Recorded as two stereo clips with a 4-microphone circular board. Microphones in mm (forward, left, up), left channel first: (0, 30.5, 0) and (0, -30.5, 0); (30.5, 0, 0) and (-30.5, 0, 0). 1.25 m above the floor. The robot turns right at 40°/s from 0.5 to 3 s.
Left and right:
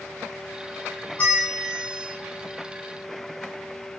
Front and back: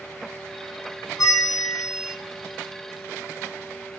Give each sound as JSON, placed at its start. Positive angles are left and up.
{"t": 1.2, "sound": "a bell", "azimuth_deg": 25, "distance_m": 2.0}